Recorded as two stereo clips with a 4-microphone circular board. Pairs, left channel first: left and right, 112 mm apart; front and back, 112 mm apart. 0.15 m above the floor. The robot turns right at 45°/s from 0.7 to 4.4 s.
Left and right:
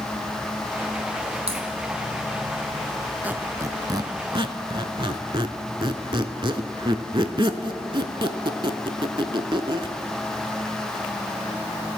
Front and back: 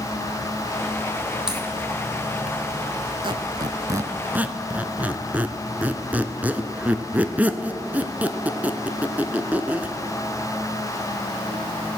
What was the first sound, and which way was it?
A crack, 100° right.